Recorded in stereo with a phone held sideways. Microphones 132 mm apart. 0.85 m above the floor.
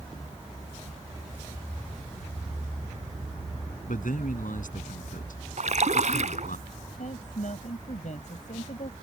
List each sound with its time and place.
3.9 s a man speaking: 80° left
5.6 s a splash: 65° right (ahead or behind)
7.0 s a woman speaking: 65° left (ahead or behind)